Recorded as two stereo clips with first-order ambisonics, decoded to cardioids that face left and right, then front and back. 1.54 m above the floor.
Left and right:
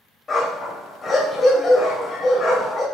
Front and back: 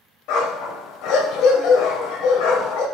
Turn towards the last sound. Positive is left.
turn(degrees=20)